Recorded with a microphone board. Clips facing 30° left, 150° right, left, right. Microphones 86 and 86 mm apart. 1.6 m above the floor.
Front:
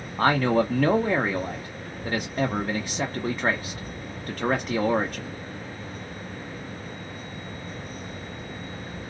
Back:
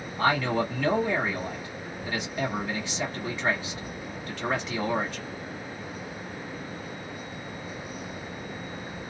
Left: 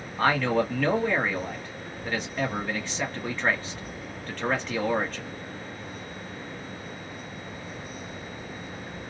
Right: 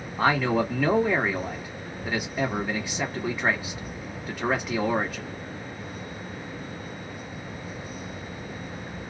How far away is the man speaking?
About 1.0 m.